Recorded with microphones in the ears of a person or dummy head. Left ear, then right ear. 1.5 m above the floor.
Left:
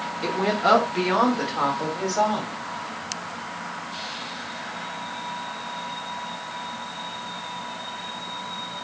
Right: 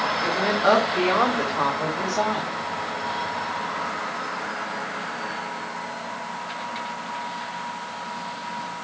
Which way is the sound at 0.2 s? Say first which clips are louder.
Left 1 dB; 10° left (ahead or behind).